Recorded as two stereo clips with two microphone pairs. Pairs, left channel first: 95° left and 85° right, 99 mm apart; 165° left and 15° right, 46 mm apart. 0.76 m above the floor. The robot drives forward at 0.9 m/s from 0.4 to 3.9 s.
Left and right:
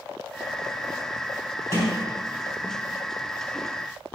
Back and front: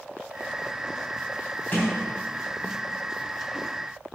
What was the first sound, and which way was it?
A sliding door, 150° right.